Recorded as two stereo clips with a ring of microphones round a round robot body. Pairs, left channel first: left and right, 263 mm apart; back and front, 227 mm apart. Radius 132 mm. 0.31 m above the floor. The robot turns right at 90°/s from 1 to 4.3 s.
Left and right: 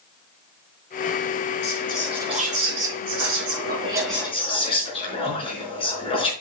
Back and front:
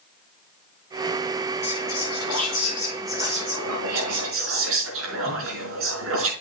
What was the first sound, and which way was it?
Whispering, 140° left.